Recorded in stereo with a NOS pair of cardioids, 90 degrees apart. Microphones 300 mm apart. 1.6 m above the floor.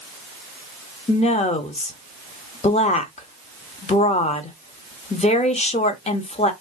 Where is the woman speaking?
20° left, 0.9 m.